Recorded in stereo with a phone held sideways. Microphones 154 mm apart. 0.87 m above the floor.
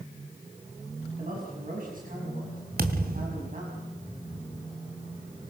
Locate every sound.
1.2 s a man speaking: 65° right (ahead or behind), 5.5 m
2.8 s a thud: 80° right, 2 m